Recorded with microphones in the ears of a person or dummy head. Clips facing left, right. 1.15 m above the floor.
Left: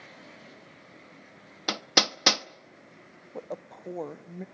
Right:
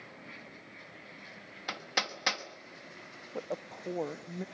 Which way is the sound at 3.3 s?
Centre (ahead or behind).